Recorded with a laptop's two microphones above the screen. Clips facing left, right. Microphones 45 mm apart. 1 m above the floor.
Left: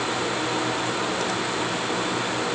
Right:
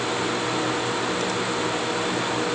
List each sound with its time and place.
Only background noise.